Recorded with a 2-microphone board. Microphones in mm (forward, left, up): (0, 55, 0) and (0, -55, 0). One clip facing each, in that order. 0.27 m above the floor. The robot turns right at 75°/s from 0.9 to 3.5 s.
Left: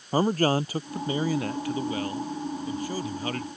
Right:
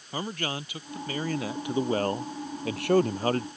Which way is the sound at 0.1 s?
145° left.